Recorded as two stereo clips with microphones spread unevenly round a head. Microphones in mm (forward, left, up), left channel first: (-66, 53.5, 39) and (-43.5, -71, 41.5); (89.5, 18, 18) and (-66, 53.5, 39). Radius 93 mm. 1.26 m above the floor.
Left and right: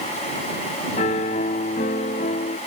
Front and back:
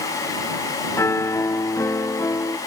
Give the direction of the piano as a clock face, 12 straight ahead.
10 o'clock.